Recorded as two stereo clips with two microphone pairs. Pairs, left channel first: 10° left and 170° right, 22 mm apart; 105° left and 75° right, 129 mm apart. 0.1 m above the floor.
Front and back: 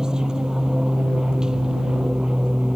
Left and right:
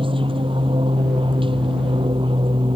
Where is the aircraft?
115° right.